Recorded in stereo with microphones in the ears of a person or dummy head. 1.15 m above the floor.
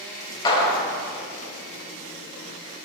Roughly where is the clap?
Left.